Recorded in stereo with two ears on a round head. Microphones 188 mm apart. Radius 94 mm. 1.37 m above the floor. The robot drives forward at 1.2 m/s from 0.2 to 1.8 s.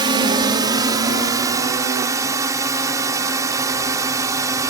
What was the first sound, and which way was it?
A drone, 20° right (ahead or behind).